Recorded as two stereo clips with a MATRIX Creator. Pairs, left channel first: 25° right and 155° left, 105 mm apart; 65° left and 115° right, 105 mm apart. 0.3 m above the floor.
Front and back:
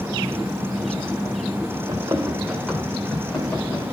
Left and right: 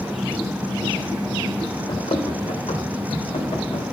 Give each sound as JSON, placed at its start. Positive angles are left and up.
{"t": 1.9, "sound": "running footsteps", "azimuth_deg": 110, "distance_m": 1.3}